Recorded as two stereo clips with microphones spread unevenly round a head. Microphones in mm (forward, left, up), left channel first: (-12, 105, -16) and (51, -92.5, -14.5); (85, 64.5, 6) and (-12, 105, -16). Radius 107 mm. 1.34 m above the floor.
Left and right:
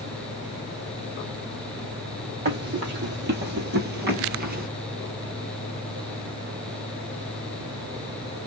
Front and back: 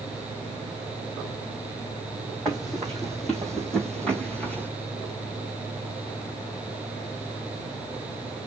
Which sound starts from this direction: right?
Running footsteps, at 2.5 s.